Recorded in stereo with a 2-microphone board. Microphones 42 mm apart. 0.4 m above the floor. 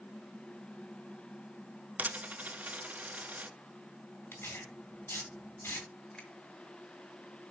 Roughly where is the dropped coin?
Right.